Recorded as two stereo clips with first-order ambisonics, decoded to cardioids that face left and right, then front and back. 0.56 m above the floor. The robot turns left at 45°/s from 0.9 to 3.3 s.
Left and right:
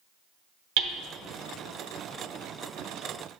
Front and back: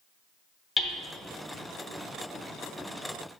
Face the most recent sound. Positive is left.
turn(degrees=170)